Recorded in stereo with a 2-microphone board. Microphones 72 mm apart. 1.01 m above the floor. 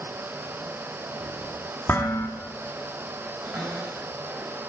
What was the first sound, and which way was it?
Dishes clattering, 30° left (ahead or behind).